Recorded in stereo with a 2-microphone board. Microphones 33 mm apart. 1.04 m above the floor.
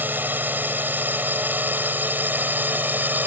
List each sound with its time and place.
0.0 s a drone: 75° right (ahead or behind); by 3.3 s 70° right (ahead or behind)